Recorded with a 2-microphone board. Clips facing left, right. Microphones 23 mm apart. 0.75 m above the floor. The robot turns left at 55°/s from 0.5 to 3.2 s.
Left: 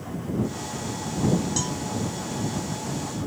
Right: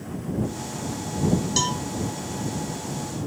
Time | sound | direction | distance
1.6 | a cowbell | 45° right (ahead or behind) | ?